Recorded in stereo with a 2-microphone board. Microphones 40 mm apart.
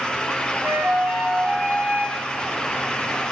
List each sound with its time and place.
0.6 s a flute: 40° right (ahead or behind), 1.9 m